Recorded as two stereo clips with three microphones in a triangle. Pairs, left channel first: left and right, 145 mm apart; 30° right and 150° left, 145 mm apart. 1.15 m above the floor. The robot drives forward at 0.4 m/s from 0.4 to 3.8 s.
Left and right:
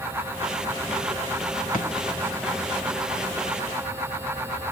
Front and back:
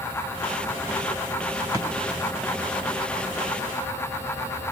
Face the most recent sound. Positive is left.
turn(degrees=115)